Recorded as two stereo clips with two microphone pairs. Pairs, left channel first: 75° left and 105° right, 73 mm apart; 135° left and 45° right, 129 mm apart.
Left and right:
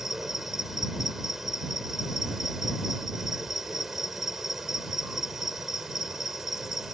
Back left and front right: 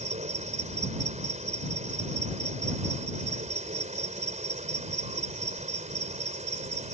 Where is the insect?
20° right.